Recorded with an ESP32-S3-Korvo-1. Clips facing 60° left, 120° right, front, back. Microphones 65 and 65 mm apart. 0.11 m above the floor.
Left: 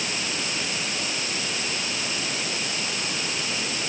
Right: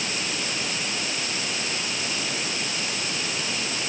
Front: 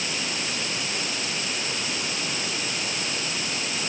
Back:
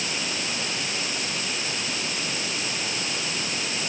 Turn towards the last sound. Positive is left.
No sound to turn to.